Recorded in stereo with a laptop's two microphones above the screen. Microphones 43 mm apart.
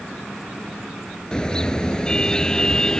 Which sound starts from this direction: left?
A car horn, at 1.3 s.